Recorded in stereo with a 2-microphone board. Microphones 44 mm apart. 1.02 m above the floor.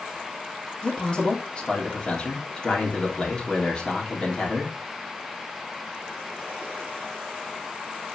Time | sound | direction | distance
0.8 | a man speaking | 20° left (ahead or behind) | 3 m